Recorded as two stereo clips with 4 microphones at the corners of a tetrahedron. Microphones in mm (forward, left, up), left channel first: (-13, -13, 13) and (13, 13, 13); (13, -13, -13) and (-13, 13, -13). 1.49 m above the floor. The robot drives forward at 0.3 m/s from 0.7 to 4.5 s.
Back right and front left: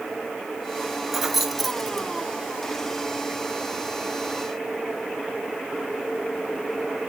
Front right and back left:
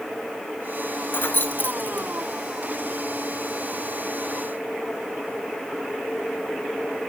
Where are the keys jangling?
35° right, 0.9 m; by 2.1 s 55° right, 0.7 m.